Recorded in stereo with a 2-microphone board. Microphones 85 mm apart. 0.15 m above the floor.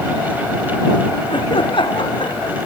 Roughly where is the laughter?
Left.